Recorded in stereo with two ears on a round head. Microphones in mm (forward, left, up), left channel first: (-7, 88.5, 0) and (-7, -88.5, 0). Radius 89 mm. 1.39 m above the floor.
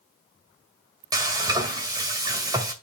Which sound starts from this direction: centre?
Frying, at 1.1 s.